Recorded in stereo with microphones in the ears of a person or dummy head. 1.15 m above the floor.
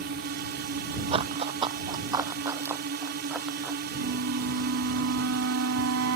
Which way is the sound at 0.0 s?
60° right (ahead or behind).